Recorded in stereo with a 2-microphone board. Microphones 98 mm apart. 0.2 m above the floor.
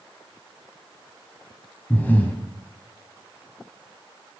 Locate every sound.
1.9 s breathing: 20° left (ahead or behind), 1.6 m